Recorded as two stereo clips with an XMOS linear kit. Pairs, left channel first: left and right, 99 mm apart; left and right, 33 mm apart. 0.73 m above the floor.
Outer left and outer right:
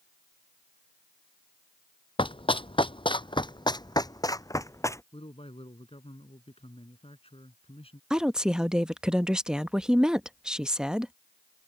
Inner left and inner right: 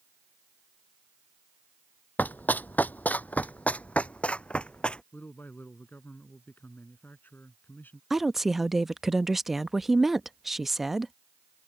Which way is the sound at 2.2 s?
60° left (ahead or behind).